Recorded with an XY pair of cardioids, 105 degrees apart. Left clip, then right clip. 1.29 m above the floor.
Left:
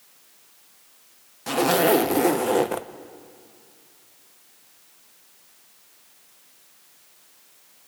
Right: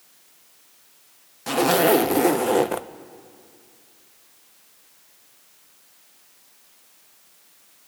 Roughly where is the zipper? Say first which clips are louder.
Right 1 dB; ahead.